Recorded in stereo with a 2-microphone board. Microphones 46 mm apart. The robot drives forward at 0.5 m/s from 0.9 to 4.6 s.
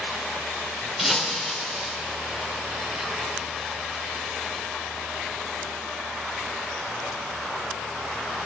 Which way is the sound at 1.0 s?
5° right (ahead or behind).